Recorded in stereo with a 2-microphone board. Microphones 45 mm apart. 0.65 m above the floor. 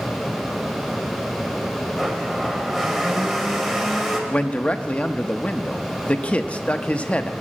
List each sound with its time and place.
2.0 s a blender: centre (ahead or behind), 2.5 m
4.3 s a man speaking: 25° left (ahead or behind), 0.7 m